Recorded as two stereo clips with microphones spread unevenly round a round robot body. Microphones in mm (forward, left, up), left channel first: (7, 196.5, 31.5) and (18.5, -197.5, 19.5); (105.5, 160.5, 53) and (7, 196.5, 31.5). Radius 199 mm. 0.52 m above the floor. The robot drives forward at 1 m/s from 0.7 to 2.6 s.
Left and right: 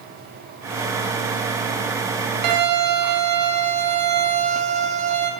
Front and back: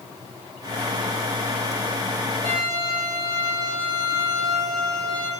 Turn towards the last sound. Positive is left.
turn(degrees=-140)